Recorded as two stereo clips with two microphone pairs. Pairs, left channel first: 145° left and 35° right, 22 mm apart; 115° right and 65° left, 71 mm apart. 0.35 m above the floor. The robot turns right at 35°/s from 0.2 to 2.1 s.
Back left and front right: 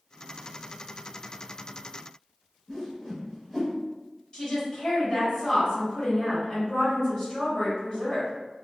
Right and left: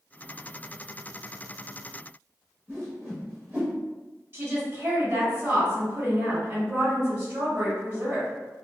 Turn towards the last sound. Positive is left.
turn(degrees=110)